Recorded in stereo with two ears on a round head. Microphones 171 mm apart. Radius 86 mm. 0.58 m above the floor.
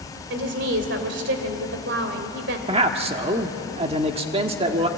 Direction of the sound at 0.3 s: 65° right (ahead or behind).